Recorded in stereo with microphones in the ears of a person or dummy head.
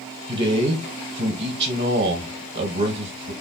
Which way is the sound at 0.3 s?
55° right (ahead or behind).